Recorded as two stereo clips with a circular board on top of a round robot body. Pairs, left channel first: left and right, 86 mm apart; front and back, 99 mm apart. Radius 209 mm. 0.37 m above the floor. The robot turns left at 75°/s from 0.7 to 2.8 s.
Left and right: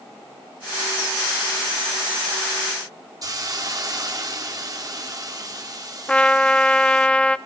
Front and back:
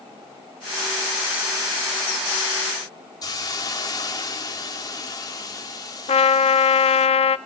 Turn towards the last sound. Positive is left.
turn(degrees=10)